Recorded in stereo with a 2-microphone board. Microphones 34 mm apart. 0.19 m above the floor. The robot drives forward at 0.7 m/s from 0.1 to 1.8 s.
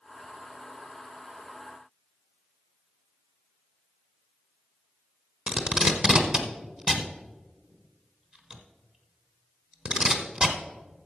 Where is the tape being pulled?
30° right (ahead or behind), 0.9 m.